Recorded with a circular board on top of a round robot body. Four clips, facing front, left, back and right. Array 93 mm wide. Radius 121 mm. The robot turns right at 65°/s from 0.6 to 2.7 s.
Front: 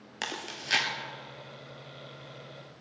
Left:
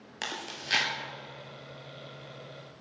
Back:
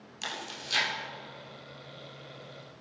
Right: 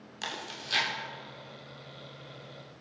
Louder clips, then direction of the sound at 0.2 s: Left 1 dB, front 2 dB; 30° left.